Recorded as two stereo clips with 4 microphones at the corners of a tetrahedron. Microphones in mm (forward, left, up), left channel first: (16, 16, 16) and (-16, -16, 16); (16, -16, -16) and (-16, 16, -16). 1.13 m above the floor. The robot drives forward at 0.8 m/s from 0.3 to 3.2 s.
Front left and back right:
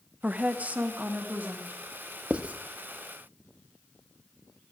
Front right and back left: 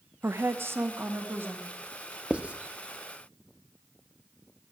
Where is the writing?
175° right, 0.7 m; by 2.5 s straight behind, 0.8 m.